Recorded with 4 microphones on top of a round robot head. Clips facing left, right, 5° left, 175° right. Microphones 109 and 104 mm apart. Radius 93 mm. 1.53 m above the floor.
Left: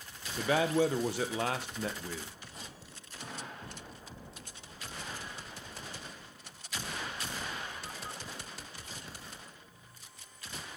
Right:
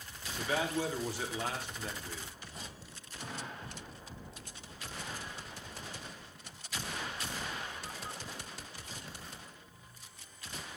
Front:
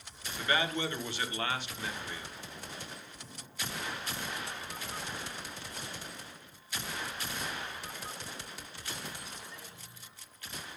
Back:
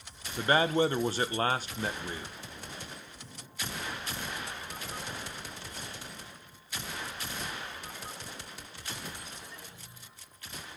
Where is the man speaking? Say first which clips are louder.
Left 6 dB, back 7 dB; 130° left, 1.5 m.